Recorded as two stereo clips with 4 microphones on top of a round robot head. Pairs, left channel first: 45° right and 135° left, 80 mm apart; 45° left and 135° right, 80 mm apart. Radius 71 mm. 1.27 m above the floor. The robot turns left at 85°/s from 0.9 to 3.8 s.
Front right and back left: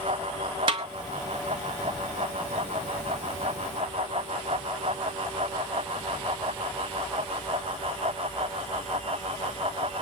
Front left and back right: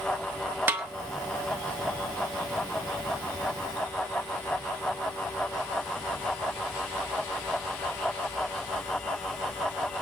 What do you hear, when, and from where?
0.7 s a snare drum: 160° left, 0.7 m